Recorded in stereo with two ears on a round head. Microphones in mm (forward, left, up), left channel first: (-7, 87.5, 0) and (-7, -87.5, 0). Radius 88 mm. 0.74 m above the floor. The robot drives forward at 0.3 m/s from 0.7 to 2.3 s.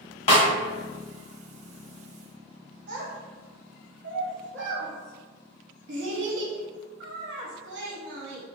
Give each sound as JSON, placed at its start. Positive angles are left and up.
{"t": 0.3, "sound": "a snare drum", "side_deg": 30, "distance_m": 0.9}
{"t": 2.9, "sound": "a child speaking", "side_deg": -60, "distance_m": 0.8}